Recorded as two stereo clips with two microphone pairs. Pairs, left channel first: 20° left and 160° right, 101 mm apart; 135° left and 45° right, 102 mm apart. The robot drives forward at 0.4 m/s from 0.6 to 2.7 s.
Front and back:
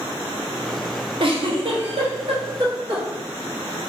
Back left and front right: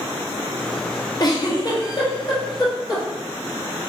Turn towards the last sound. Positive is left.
turn(degrees=180)